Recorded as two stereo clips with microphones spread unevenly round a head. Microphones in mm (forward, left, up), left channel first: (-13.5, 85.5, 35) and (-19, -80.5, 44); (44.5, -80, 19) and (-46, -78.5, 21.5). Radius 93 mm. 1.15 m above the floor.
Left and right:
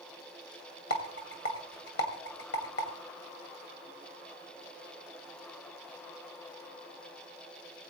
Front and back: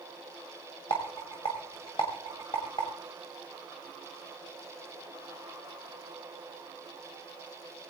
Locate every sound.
0.9 s a rattle: 60° left, 2 m